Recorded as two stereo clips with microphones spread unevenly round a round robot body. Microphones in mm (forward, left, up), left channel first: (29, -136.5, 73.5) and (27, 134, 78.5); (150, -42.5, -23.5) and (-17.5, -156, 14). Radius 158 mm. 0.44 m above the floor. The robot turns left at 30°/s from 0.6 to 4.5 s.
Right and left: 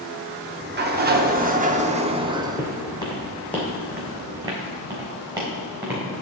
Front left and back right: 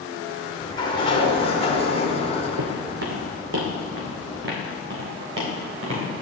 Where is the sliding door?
80° left, 0.9 m; by 3.0 s 5° left, 0.9 m.